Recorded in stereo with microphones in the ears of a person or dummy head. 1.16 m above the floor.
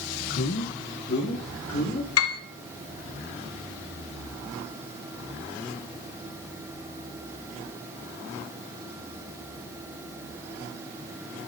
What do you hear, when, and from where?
0.3 s a man speaking: 45° left (ahead or behind), 0.5 m
2.2 s a piano: 70° left (ahead or behind), 0.7 m